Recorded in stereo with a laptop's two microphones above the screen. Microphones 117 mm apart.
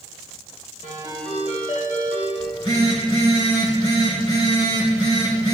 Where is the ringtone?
65° left (ahead or behind), 2.5 m.